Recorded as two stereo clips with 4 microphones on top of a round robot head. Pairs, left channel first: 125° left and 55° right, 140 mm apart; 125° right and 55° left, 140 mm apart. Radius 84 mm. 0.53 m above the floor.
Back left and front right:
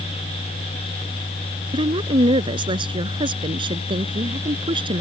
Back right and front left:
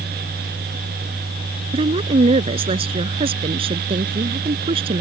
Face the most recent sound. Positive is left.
turn(degrees=0)